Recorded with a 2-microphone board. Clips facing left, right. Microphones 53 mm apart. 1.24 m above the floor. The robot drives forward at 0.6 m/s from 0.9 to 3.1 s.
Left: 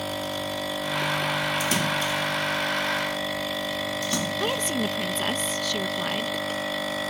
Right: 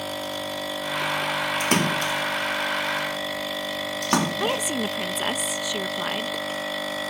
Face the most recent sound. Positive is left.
turn(degrees=-10)  # may be behind; listen again after turning